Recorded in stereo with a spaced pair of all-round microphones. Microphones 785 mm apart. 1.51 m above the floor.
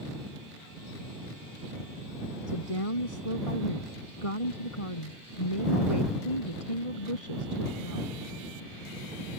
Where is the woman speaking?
40° left (ahead or behind).